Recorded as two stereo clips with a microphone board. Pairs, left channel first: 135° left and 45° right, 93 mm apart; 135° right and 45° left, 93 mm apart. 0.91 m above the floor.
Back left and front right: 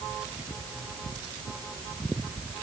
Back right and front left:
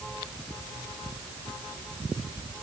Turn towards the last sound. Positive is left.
No sound to turn to.